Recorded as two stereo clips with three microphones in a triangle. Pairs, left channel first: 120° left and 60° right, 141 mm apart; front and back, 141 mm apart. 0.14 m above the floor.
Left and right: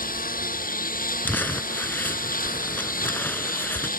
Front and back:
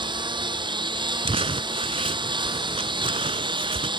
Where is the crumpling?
170° right.